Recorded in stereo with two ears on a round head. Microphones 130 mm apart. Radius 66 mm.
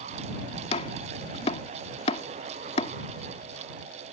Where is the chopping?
45° left (ahead or behind).